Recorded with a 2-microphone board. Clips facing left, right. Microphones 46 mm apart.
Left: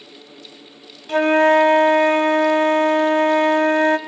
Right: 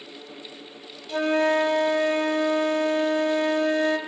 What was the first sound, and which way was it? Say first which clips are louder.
A flute: left 8 dB; 55° left (ahead or behind).